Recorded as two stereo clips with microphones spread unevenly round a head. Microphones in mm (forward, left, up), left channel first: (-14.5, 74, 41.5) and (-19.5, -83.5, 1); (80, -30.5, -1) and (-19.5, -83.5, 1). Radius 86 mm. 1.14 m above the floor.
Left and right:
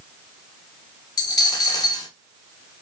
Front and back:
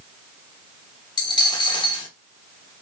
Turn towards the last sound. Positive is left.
turn(degrees=60)